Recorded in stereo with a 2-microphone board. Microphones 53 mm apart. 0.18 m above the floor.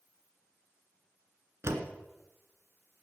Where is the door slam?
55° right (ahead or behind), 2.0 m.